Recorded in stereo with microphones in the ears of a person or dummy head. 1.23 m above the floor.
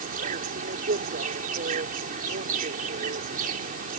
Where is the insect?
50° right (ahead or behind).